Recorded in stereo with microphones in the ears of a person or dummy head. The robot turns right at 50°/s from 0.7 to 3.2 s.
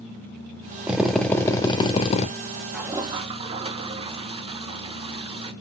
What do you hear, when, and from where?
0.9 s a drill: 10° right, 1.1 m; by 2.3 s 65° left, 1.1 m
2.7 s a toilet flushing: 5° right (ahead or behind), 1.2 m; by 5.5 s 30° right (ahead or behind), 1.2 m